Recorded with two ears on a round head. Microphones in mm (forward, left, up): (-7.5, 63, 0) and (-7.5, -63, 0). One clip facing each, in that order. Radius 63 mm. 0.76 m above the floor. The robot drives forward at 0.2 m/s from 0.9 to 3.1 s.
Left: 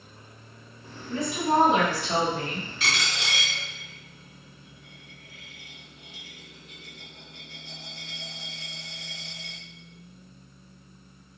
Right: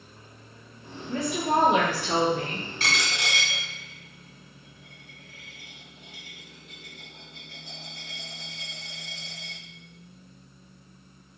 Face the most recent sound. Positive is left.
turn(degrees=-40)  # may be behind; listen again after turning